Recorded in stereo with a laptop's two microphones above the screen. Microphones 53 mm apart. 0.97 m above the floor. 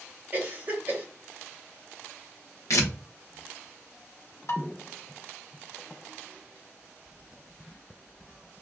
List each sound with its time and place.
0.3 s a cough: 35° right (ahead or behind), 1.5 m
2.7 s tearing paper: 70° left (ahead or behind), 0.8 m
4.5 s dishes clattering: 60° left (ahead or behind), 1.0 m